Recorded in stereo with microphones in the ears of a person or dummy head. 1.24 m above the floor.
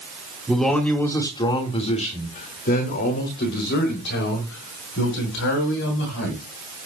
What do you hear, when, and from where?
0.5 s a man speaking: 5° left (ahead or behind), 1.8 m; by 6.4 s 80° left, 5 m